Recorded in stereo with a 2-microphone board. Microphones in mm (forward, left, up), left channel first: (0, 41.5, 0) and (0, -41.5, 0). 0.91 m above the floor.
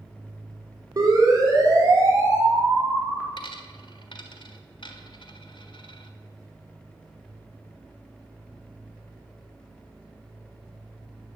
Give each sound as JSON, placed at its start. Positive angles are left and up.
{"t": 1.0, "sound": "a siren", "side_deg": -50, "distance_m": 4.0}
{"t": 3.4, "sound": "a dropped coin", "side_deg": 75, "distance_m": 1.4}